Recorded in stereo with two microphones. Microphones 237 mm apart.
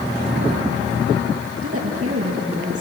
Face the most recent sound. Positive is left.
turn(degrees=-80)